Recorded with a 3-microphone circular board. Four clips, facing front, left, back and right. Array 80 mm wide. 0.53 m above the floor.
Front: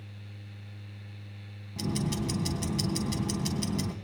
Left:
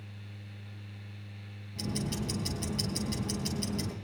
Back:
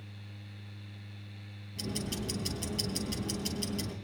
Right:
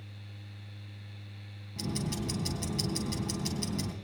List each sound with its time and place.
1.8 s ticking: 15° right, 3.5 m